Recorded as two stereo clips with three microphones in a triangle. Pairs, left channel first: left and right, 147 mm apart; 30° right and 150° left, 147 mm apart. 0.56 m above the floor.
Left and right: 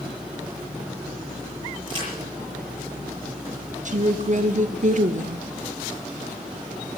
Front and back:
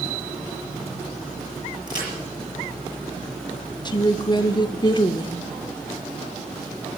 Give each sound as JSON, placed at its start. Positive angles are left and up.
{"t": 1.9, "sound": "a crack", "azimuth_deg": -145, "distance_m": 6.5}
{"t": 3.9, "sound": "a woman speaking", "azimuth_deg": -85, "distance_m": 1.0}